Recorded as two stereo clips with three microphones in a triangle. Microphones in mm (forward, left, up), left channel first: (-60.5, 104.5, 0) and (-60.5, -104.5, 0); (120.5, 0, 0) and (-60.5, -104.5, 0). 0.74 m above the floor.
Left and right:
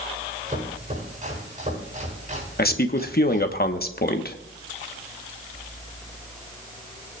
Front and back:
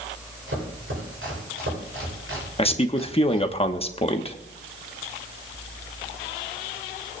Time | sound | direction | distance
0.5 | chopping | 145° right | 9 m
2.6 | a man speaking | 80° left | 1.1 m